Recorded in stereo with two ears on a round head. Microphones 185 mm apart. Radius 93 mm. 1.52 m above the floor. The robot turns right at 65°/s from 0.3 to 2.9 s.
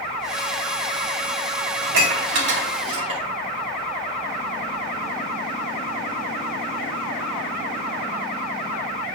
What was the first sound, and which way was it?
Dishes clattering, 75° right (ahead or behind).